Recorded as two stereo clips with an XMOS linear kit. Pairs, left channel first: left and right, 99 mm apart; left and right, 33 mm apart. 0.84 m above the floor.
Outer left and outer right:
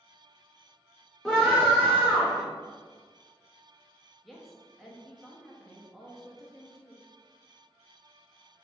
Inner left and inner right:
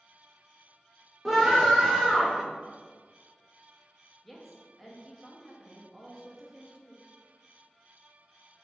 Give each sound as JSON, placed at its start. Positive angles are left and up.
{"t": 1.2, "sound": "a scream", "side_deg": 5, "distance_m": 0.8}
{"t": 4.2, "sound": "a woman speaking", "side_deg": 0, "distance_m": 0.7}